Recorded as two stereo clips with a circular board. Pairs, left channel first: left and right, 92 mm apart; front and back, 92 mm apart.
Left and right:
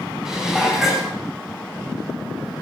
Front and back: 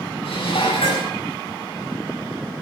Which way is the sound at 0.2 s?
5° right.